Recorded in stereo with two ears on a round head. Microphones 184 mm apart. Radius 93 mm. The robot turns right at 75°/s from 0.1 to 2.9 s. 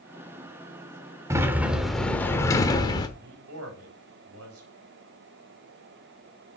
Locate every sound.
1.3 s a sliding door: 15° right (ahead or behind), 1.1 m; by 3.1 s 20° left (ahead or behind), 1.1 m
3.2 s a man speaking: 75° right (ahead or behind), 4 m